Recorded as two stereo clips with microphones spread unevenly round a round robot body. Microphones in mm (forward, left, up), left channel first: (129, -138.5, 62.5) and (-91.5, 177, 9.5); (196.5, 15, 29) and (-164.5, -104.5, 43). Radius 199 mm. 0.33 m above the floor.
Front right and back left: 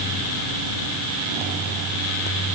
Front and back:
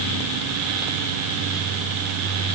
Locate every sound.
Only background noise.